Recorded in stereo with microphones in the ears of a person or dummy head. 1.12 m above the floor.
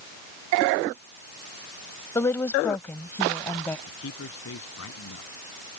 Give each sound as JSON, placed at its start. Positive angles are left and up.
{"t": 2.1, "sound": "a woman speaking", "side_deg": 20}
{"t": 3.9, "sound": "a man speaking", "side_deg": 80}